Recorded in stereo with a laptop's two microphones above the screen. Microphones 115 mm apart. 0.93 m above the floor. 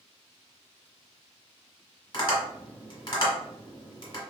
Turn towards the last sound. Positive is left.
turn(degrees=40)  # may be behind; listen again after turning